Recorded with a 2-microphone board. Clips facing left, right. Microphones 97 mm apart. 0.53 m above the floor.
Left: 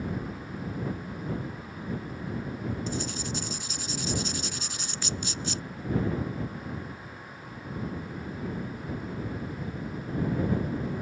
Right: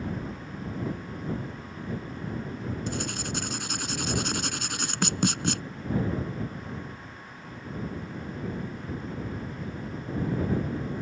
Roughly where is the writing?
Right.